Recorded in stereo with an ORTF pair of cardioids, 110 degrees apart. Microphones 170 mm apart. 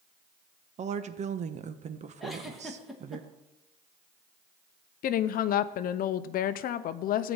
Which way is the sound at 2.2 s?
Straight ahead.